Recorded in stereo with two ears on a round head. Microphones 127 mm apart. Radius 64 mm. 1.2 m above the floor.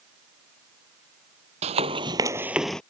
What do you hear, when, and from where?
1.6 s running footsteps: 45° right (ahead or behind); by 2.8 s 5° left (ahead or behind)